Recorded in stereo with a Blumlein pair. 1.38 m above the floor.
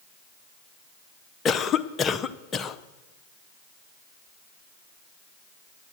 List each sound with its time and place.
1.4 s a cough: 20° left, 0.8 m